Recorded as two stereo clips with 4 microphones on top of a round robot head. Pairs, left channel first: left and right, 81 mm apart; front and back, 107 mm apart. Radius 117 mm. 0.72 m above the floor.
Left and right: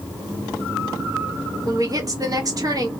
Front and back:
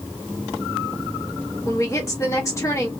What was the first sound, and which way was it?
A woman speaking, 55° right.